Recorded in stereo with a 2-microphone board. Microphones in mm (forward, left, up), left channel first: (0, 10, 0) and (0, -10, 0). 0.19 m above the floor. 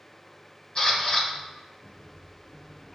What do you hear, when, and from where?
0.8 s a camera shutter: 40° left (ahead or behind), 1.6 m